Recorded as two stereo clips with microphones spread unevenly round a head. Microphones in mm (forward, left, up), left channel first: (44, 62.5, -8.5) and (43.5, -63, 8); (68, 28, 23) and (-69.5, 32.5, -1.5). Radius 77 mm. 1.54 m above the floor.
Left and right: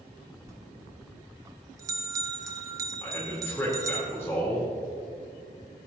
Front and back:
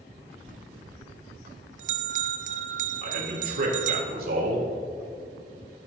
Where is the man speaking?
165° left, 3.5 m.